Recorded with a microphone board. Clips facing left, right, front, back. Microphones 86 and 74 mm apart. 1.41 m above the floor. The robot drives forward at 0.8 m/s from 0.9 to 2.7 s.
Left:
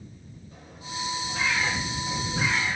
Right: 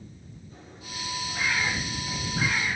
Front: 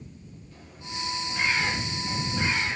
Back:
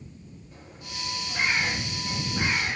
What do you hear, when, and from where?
0.5 s a bird: 110° left, 6.5 m; by 2.8 s 120° left, 7 m